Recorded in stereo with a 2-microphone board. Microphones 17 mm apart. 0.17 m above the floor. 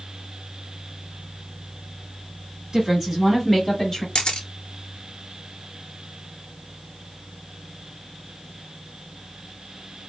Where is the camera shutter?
65° left (ahead or behind), 0.7 m.